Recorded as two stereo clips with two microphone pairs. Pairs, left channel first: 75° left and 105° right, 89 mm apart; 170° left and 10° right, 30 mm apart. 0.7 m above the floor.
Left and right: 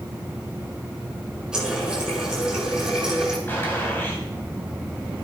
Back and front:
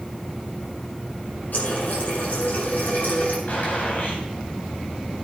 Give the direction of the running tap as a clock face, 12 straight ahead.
6 o'clock.